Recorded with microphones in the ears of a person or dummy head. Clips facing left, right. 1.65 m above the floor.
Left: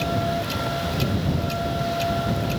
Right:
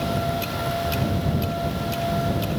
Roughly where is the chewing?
I don't hear chewing.